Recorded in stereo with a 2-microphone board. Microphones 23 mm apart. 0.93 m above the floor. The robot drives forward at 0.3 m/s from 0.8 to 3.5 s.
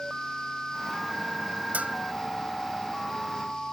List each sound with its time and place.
1.7 s a bell: 85° right